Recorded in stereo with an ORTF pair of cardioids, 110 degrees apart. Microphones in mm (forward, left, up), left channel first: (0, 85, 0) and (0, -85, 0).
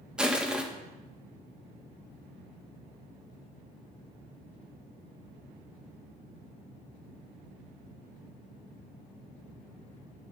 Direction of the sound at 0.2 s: 5° right.